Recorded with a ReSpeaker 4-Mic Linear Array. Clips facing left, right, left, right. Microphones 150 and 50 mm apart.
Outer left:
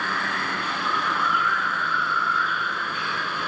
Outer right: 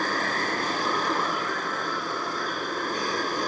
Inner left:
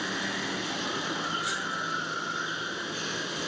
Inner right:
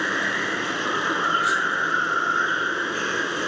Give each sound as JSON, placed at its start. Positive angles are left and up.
{"t": 0.0, "sound": "running water", "side_deg": -40}